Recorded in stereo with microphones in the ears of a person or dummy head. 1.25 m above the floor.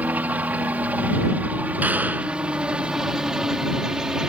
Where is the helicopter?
5° right (ahead or behind).